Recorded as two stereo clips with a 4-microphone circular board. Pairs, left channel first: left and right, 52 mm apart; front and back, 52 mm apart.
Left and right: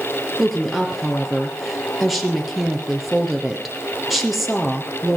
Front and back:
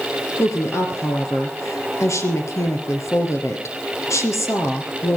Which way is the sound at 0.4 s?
5° right.